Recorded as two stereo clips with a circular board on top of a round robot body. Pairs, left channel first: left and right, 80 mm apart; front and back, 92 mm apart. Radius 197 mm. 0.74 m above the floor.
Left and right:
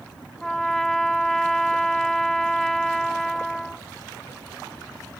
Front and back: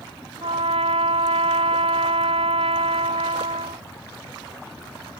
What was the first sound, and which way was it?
A trumpet, 175° left.